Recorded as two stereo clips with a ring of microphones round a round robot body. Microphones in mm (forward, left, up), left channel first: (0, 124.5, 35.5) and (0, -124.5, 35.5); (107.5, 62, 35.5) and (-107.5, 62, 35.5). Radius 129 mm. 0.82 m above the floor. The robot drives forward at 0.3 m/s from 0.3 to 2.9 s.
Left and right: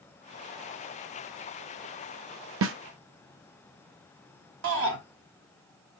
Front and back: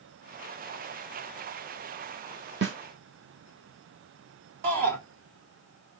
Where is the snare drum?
130° right, 0.6 m; by 2.8 s 135° right, 0.6 m.